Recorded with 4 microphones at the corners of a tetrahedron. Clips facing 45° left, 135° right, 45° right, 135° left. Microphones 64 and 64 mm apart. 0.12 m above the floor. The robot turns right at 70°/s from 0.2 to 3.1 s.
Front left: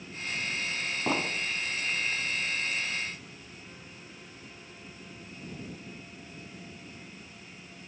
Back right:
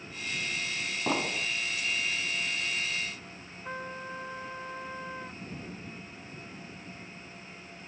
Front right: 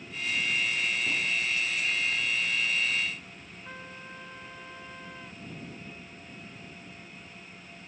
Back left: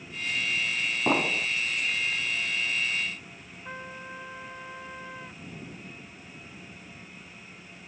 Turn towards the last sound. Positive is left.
turn(degrees=-155)